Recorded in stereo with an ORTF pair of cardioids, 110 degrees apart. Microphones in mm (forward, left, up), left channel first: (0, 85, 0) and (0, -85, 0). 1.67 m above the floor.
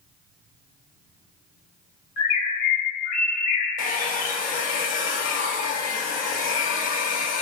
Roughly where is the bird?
Ahead left.